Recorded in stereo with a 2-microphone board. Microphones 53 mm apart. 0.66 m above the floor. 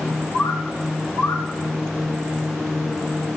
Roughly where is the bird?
Left.